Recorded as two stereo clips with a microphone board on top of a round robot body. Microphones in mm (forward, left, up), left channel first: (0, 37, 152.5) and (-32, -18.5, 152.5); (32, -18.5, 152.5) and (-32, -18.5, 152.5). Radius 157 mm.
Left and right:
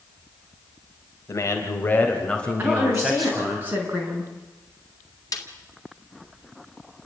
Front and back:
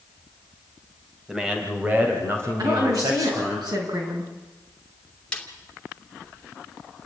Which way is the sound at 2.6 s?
Straight behind.